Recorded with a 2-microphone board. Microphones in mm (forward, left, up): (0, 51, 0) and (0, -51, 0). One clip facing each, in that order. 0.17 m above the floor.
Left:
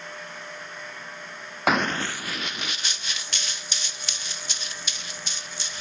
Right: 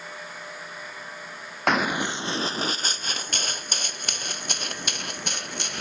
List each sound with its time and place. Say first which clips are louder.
1.7 s running footsteps: even; 5° left (ahead or behind); by 5.8 s 60° right (ahead or behind)